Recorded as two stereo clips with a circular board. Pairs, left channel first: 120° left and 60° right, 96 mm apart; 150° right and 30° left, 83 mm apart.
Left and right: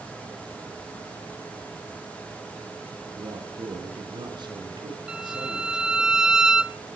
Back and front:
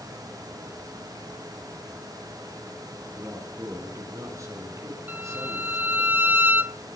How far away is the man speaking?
About 5 m.